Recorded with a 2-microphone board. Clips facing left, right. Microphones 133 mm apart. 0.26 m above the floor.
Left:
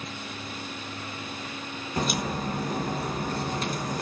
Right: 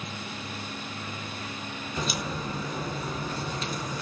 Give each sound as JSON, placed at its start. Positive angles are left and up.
{"t": 2.0, "sound": "a crack", "side_deg": 55, "distance_m": 3.5}